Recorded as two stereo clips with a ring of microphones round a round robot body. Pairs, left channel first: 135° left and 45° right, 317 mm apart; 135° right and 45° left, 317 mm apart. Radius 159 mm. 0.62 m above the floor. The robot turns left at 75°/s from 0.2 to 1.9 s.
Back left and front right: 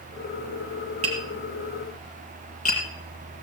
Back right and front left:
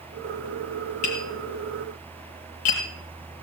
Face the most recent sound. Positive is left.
turn(degrees=-155)